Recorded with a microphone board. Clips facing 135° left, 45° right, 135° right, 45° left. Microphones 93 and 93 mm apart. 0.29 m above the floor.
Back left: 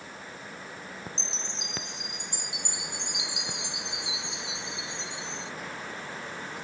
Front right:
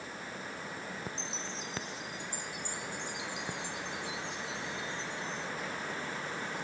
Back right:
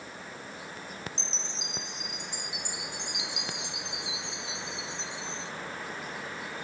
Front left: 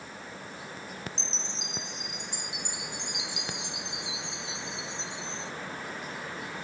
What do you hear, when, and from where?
1.2 s a chime: 135° left